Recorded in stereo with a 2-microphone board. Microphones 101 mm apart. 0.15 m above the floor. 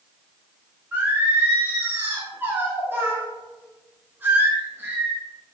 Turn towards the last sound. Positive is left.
turn(degrees=-20)  # may be behind; listen again after turning